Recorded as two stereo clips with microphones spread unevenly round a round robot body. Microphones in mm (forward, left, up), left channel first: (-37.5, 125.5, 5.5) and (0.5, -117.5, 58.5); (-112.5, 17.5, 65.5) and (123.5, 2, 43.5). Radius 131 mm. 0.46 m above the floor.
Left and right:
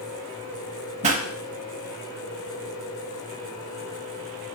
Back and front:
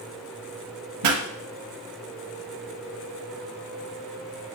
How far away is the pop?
About 1.2 m.